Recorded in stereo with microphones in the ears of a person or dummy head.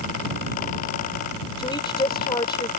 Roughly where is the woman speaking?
Left.